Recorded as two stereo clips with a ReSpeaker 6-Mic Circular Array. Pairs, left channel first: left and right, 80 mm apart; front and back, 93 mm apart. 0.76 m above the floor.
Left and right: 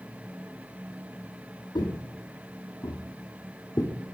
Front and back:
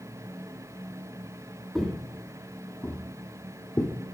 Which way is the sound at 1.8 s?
90° left.